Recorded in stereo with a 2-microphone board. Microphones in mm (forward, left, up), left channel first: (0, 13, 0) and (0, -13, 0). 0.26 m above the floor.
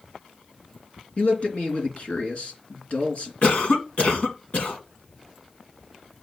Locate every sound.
1.2 s a man speaking: 55° left (ahead or behind), 3 m
3.4 s a cough: 55° left (ahead or behind), 1.9 m